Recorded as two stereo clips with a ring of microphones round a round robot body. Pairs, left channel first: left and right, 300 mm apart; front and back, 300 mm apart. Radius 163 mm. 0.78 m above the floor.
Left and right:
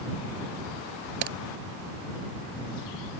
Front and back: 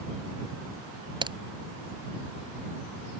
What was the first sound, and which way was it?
A crack, 105° right.